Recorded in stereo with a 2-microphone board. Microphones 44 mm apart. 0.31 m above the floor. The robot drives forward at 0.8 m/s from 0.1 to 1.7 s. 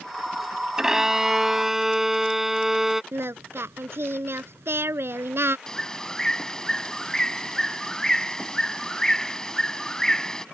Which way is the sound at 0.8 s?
15° right (ahead or behind).